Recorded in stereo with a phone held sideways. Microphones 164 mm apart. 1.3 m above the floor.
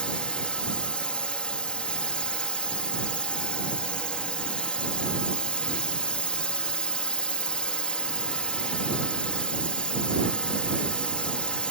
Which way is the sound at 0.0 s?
5° left (ahead or behind).